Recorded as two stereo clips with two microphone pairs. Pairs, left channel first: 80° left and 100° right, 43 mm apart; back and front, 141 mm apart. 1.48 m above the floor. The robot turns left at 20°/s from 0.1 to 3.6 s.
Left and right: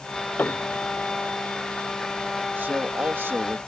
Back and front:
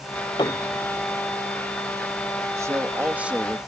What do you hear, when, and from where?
0.4 s a piano: 125° left; by 1.4 s 105° left
2.6 s a man speaking: 65° right; by 3.6 s 90° right